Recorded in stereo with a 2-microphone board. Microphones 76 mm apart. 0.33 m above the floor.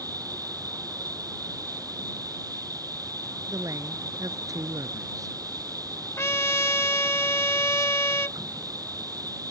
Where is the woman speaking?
50° right (ahead or behind).